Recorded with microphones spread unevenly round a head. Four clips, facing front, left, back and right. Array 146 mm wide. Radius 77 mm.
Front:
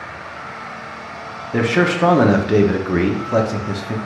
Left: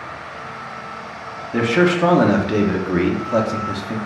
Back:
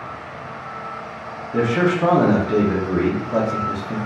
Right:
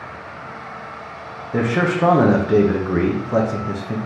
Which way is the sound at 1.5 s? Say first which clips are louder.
Left 3 dB, front 1 dB; 15° right.